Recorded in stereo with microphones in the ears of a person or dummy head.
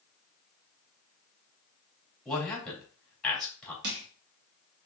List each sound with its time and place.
2.2 s a man speaking: 5° left (ahead or behind), 3 m
3.8 s crushing: 60° right (ahead or behind), 1.3 m